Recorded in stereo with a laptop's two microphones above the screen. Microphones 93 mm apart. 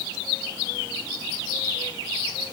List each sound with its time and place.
Only background noise.